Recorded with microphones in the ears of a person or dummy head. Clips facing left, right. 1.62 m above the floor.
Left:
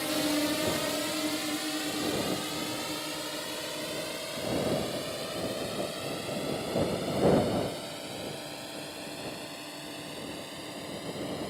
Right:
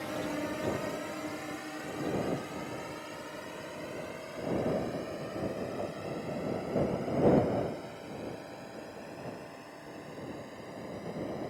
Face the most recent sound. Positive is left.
turn(degrees=55)  # may be behind; listen again after turning